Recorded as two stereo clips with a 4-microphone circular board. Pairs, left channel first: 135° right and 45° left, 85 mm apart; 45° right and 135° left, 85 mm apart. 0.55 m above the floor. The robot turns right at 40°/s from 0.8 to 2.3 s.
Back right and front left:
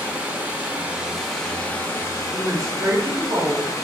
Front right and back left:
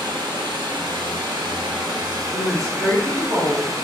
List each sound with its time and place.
0.0 s running water: 115° left, 0.8 m; by 3.8 s 175° left, 0.8 m
2.3 s a woman speaking: 85° left, 1.2 m